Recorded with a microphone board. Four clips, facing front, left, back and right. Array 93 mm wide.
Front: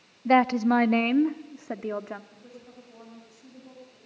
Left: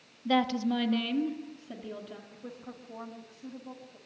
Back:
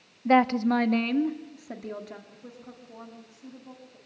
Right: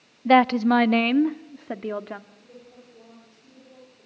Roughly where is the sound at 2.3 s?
Left.